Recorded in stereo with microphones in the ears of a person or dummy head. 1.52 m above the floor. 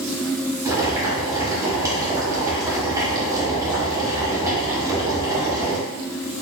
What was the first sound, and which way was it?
Boiling, 15° right (ahead or behind).